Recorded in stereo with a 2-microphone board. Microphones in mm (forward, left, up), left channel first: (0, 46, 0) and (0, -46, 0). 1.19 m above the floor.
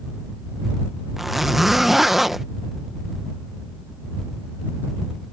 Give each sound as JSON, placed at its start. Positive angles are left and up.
{"t": 1.2, "sound": "a zipper", "side_deg": 0}